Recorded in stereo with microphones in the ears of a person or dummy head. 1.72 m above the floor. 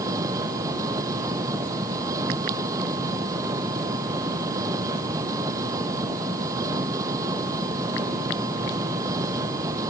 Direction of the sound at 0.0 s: 20° right (ahead or behind).